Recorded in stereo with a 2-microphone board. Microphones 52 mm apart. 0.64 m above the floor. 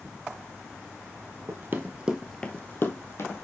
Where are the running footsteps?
50° right (ahead or behind), 1.0 m; by 3.5 s 55° left (ahead or behind), 1.6 m.